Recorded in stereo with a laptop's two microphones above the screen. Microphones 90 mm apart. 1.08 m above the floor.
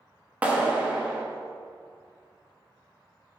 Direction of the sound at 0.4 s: 15° right (ahead or behind).